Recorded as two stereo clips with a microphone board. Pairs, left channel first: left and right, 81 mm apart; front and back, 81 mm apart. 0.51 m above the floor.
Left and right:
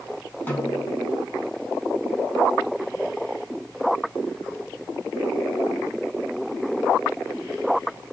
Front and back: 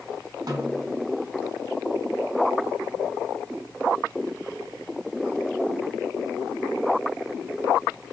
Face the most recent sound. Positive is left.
turn(degrees=155)